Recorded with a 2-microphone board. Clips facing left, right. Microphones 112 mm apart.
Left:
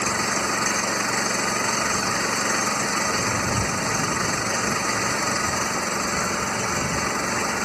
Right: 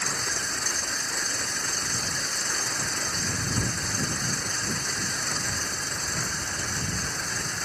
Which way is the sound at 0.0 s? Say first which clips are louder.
Left 9 dB; 80° left.